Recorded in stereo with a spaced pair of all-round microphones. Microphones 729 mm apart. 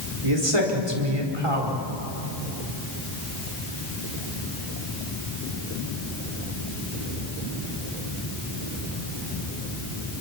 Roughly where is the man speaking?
Right.